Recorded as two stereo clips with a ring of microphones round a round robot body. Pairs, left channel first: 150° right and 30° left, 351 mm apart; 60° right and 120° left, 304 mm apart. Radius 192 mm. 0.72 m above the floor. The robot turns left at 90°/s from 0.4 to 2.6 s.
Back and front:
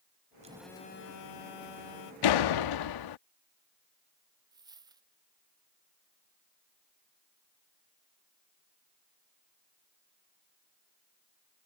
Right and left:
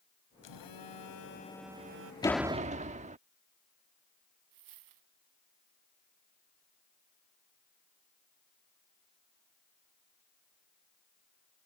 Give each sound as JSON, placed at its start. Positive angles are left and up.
{"t": 0.4, "sound": "a phone buzzing", "azimuth_deg": -40}
{"t": 2.2, "sound": "a door slam", "azimuth_deg": -135}
{"t": 4.5, "sound": "a dropped coin", "azimuth_deg": 110}